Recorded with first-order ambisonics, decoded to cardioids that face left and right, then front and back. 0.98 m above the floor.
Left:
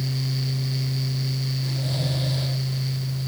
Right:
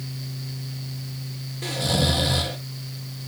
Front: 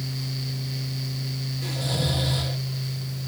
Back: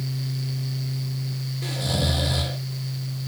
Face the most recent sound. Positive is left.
turn(degrees=-105)